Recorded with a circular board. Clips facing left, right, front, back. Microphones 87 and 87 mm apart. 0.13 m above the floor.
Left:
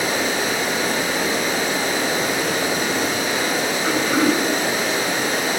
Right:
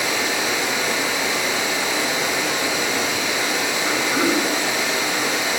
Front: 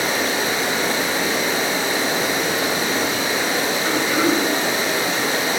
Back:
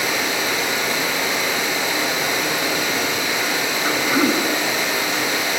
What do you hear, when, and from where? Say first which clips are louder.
0.0 s running water: left 1 dB, front 1 dB; 50° left, 1.9 m
3.8 s throat clearing: left 3 dB, back 1 dB; 115° left, 7 m